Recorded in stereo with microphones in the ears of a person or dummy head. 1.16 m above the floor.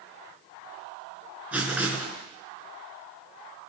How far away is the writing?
About 3 m.